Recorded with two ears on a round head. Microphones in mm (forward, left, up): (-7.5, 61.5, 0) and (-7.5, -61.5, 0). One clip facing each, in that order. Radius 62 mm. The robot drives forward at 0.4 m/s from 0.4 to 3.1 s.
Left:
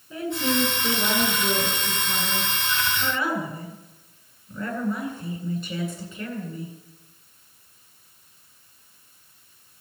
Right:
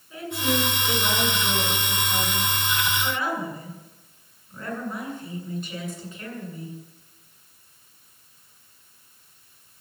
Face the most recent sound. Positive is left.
turn(degrees=90)